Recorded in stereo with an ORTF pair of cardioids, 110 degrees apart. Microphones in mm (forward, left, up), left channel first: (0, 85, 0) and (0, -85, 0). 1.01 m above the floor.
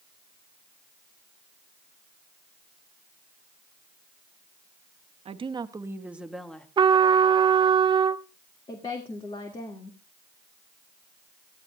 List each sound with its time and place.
5.2 s a woman speaking: 35° right, 1.1 m; by 6.7 s 5° left, 1.3 m
6.8 s a trumpet: 30° right, 0.6 m
8.7 s a woman speaking: 30° left, 1.8 m